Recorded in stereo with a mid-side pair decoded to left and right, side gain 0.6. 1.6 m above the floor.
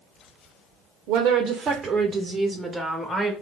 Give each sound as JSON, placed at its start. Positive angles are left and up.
{"t": 1.1, "sound": "a woman speaking", "azimuth_deg": -70, "distance_m": 0.6}